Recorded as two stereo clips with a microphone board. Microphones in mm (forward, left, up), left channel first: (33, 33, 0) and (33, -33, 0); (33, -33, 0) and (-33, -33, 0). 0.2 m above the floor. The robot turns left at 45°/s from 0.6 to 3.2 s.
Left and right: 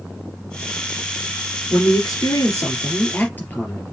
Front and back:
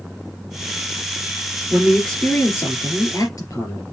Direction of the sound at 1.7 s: 90° left.